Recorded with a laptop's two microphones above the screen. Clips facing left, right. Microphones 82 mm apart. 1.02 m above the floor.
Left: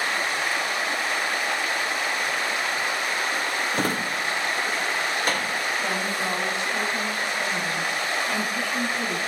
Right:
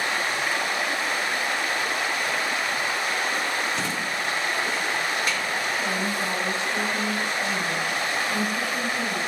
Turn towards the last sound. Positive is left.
turn(degrees=5)  # may be behind; listen again after turning